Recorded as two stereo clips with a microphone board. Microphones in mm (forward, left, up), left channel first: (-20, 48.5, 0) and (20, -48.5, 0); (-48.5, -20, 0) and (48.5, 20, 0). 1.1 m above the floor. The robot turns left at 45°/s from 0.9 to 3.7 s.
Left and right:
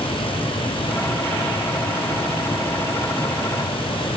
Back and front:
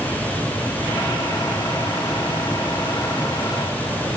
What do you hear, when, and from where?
Only background noise.